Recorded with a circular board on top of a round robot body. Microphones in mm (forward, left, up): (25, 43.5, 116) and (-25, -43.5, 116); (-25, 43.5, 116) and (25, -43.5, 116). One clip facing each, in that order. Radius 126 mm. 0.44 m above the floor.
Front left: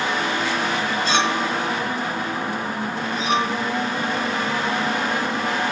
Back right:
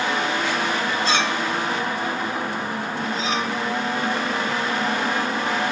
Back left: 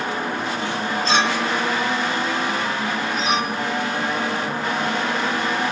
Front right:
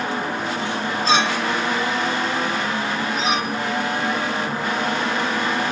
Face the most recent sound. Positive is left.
turn(degrees=25)